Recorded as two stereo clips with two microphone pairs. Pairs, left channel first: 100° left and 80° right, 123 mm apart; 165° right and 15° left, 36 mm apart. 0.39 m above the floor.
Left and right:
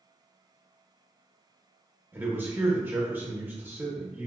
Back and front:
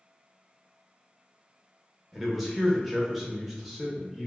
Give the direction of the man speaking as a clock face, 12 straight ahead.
2 o'clock.